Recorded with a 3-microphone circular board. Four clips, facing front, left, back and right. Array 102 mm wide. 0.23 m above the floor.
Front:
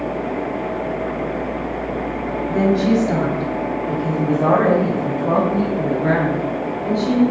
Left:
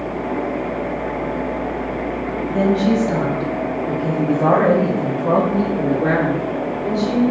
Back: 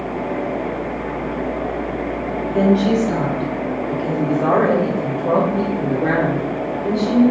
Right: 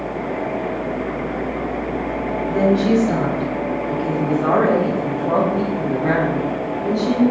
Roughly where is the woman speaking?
Ahead right.